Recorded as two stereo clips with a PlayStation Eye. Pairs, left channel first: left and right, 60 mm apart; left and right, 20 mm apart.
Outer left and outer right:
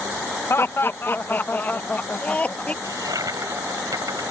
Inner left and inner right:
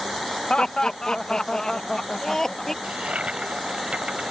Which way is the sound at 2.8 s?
80° right.